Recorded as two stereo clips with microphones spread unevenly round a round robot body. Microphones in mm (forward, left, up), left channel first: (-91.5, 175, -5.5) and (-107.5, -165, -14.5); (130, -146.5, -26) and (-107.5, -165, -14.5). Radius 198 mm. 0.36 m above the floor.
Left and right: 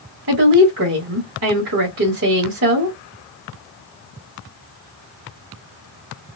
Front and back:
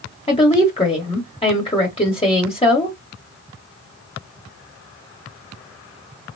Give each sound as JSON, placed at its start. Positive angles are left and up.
{"t": 0.3, "sound": "a woman speaking", "azimuth_deg": -50, "distance_m": 1.2}